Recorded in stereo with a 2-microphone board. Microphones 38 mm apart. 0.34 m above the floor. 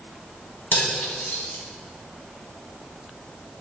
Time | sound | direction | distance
0.7 | cutlery clinking | 70° left (ahead or behind) | 1.7 m